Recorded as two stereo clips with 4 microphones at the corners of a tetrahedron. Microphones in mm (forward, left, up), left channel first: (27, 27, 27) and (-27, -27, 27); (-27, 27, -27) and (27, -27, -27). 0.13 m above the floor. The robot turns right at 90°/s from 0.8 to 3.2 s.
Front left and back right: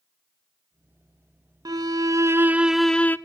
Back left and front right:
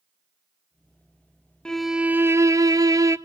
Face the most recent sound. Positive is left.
turn(degrees=-10)